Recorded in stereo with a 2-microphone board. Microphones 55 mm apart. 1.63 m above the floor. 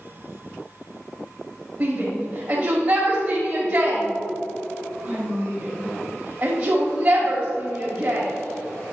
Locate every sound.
1.8 s a shout: 30° right (ahead or behind), 1.3 m